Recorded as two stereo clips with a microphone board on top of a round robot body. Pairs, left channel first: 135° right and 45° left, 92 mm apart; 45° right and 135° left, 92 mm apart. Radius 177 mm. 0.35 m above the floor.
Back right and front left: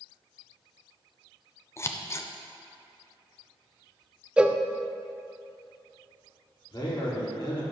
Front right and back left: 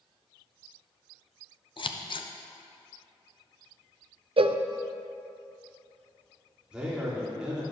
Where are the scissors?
75° right, 0.7 m.